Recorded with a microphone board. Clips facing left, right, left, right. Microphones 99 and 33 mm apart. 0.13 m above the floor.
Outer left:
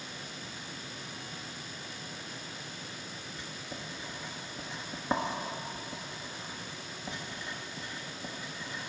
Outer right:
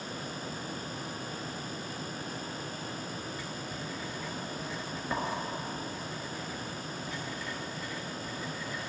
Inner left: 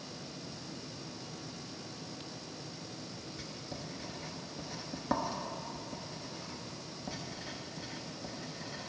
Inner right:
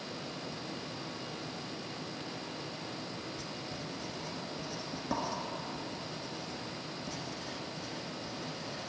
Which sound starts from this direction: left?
Writing, at 3.4 s.